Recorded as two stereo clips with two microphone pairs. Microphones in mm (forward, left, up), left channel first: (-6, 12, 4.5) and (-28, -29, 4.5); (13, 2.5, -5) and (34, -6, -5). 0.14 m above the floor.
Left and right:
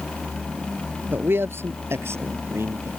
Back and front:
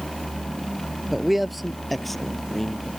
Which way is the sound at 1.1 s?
100° right.